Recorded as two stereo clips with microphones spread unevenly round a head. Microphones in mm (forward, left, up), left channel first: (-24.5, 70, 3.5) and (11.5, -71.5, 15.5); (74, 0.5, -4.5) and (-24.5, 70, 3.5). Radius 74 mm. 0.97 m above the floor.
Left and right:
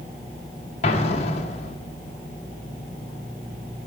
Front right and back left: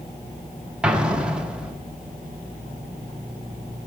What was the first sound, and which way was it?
An explosion, 60° left.